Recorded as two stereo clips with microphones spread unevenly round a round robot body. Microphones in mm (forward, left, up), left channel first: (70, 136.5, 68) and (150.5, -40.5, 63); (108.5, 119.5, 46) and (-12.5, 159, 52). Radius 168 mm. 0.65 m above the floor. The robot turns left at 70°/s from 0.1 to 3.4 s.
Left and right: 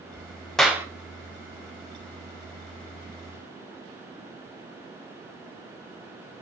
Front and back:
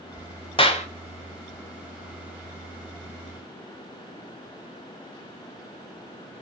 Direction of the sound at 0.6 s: 25° left.